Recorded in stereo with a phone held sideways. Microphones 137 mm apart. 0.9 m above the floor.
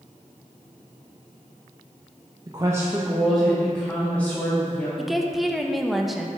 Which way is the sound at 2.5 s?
30° right (ahead or behind).